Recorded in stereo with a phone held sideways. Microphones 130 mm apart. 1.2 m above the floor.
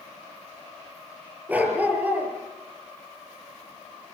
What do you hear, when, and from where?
1.5 s a dog barking: 15° right (ahead or behind), 6.5 m